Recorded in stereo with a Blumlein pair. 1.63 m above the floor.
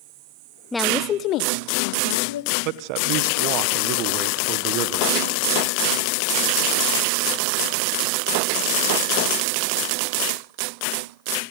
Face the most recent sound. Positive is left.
turn(degrees=-40)